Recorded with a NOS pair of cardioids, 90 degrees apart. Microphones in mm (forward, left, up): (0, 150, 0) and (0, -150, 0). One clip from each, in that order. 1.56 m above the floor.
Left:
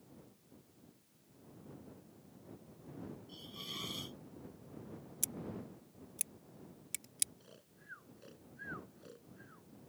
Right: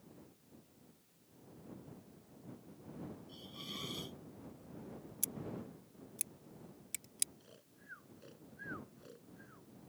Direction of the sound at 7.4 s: 10° left.